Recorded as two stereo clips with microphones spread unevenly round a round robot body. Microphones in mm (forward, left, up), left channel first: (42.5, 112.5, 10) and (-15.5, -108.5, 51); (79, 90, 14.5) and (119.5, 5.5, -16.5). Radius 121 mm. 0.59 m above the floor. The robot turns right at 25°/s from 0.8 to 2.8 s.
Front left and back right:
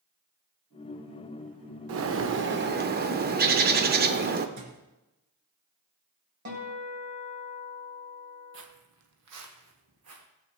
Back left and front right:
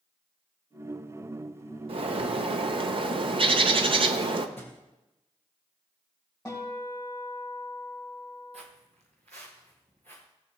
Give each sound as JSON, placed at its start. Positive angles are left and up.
{"t": 1.9, "sound": "a bird", "azimuth_deg": -75, "distance_m": 0.9}
{"t": 4.6, "sound": "a thud", "azimuth_deg": -120, "distance_m": 2.0}
{"t": 6.5, "sound": "a guitar", "azimuth_deg": -150, "distance_m": 4.0}
{"t": 8.5, "sound": "footsteps", "azimuth_deg": -85, "distance_m": 1.2}